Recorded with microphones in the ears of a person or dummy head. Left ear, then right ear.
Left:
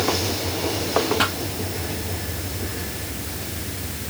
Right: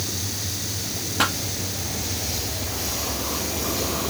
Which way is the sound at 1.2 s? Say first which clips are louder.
Even; 15° right (ahead or behind).